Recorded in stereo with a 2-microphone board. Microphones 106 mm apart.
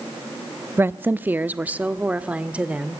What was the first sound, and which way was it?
A woman speaking, 20° right (ahead or behind).